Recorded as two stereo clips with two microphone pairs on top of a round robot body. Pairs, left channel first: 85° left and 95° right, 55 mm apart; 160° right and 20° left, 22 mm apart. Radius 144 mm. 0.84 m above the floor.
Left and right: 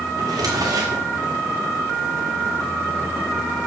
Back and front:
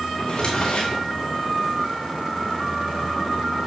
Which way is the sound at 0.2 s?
110° right.